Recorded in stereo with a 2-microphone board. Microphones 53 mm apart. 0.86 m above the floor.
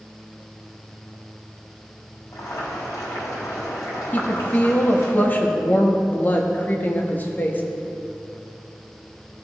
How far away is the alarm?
No alarm in this recording.